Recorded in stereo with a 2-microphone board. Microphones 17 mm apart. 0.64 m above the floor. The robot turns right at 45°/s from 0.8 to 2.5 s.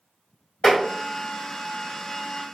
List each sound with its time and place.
0.6 s tapping: 50° left (ahead or behind), 1.7 m